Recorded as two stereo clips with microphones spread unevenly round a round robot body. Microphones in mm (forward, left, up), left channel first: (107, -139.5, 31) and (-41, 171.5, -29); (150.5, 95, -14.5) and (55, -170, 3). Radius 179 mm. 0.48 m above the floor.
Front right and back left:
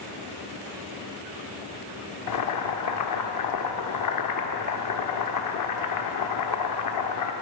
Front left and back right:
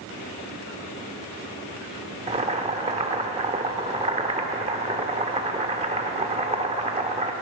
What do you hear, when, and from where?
2.3 s boiling: 45° right, 1.4 m